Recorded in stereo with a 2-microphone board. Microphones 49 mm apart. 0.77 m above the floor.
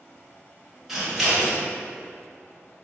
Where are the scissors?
5° right (ahead or behind), 1.1 m.